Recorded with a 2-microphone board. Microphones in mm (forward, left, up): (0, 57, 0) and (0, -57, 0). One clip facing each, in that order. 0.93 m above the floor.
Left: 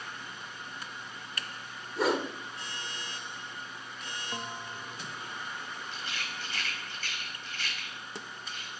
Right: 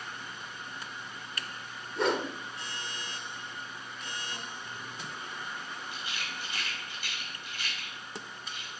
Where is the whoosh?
5° left (ahead or behind), 1.6 m.